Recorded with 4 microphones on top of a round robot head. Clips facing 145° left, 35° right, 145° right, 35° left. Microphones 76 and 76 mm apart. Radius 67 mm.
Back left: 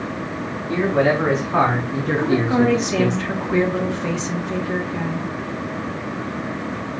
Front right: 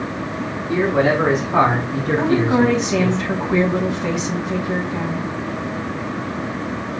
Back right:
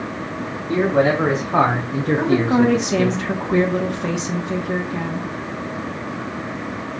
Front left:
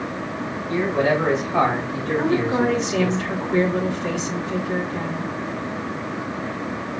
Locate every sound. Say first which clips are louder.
0.7 s a man speaking: front right 1 dB, back right 3 dB; 105° right, 1.7 m; by 3.2 s 165° left, 0.7 m
2.2 s a woman speaking: front right 2 dB, back right 3 dB; 115° right, 1.3 m